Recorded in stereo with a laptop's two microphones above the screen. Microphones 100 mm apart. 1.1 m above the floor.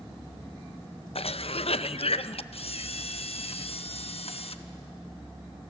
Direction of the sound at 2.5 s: 75° left (ahead or behind).